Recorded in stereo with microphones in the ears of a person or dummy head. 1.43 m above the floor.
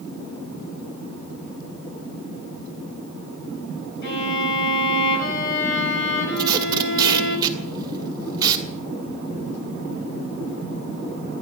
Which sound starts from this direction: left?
A violin, at 4.0 s.